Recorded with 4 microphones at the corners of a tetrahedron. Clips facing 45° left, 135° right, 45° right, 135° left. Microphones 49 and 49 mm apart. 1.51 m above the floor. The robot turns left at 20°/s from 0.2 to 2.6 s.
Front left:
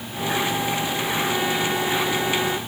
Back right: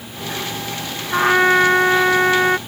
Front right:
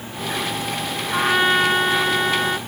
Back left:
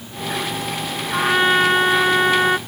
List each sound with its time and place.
1.1 s a trumpet: 135° right; by 2.6 s 165° right